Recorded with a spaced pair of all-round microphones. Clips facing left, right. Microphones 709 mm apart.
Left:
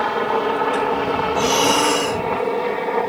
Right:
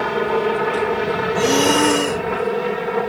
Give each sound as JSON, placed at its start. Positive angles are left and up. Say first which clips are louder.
{"t": 0.0, "sound": "a helicopter", "louder": "right 2 dB", "side_deg": -55}
{"t": 1.4, "sound": "breathing", "louder": "right 5 dB", "side_deg": -70}